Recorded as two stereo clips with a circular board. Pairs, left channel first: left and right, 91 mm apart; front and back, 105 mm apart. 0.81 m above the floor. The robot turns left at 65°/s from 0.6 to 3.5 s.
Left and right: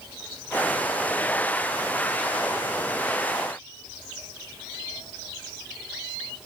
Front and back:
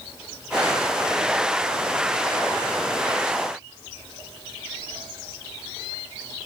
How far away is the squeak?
No squeak in this recording.